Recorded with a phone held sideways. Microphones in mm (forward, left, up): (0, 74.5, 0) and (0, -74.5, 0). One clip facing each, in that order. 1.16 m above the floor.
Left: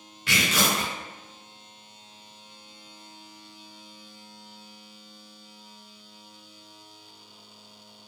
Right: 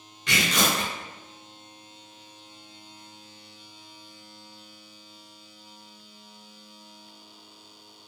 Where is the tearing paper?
5° left (ahead or behind), 1.0 m.